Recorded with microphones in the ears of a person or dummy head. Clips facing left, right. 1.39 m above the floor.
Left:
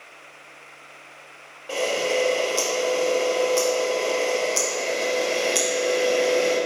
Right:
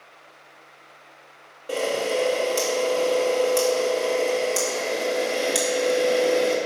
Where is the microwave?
No microwave in this recording.